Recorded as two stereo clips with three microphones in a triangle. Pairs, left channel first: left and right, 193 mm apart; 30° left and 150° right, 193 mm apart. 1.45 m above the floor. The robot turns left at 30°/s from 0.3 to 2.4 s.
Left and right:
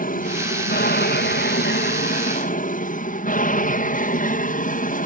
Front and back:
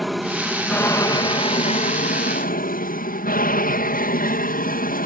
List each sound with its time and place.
0.0 s an aircraft: 120° left; by 5.1 s 55° left